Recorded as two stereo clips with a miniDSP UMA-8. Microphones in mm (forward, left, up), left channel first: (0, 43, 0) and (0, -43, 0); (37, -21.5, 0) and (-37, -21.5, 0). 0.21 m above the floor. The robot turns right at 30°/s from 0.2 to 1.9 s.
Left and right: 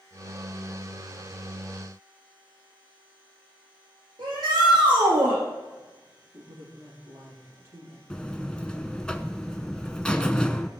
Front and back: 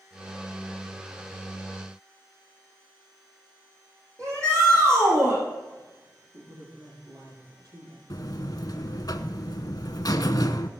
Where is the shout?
125° right, 7 m.